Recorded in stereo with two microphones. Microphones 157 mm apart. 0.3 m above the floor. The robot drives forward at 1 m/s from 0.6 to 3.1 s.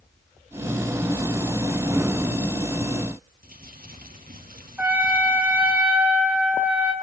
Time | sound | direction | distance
3.4 | crumpling | 65° right (ahead or behind) | 7.5 m
4.8 | a trumpet | 10° right (ahead or behind) | 3.5 m